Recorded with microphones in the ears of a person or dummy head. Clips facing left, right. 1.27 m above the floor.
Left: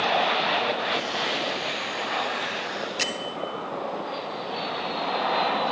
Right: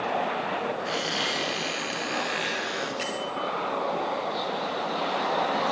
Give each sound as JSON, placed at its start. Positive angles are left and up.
{"t": 0.8, "sound": "a squeak", "side_deg": -30, "distance_m": 8.5}
{"t": 3.0, "sound": "a bell", "side_deg": 65, "distance_m": 3.0}